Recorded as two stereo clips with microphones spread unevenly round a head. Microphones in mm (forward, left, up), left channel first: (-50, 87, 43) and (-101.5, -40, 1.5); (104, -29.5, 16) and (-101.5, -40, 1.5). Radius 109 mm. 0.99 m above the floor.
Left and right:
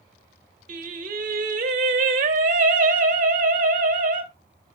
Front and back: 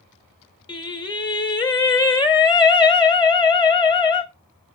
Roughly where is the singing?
Ahead right.